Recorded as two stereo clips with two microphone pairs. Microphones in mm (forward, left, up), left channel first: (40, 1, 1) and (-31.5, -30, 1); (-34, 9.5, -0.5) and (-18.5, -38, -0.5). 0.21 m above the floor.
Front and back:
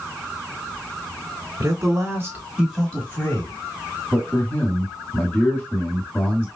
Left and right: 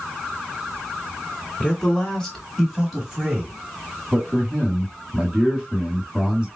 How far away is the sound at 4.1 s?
About 1.7 m.